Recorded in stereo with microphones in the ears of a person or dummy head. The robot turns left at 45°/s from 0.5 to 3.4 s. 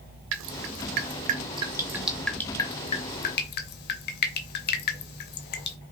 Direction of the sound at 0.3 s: 70° right (ahead or behind).